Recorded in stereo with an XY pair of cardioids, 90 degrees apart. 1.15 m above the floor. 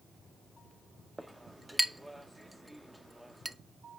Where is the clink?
Straight ahead, 0.7 m.